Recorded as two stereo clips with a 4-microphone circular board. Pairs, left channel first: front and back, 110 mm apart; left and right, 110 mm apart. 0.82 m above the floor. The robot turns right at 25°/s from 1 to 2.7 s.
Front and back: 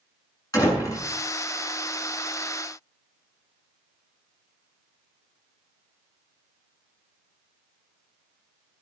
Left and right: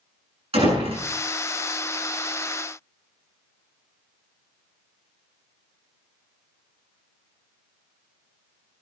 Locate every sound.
0.5 s a door slam: 60° right, 7.5 m; by 1.1 s 55° right, 7.5 m